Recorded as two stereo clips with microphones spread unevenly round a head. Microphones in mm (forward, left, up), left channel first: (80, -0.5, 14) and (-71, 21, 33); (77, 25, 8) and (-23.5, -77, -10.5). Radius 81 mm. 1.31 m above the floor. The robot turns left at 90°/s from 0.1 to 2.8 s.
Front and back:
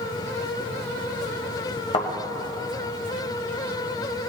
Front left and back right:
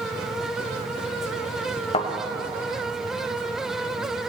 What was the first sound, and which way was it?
A thud, 45° left.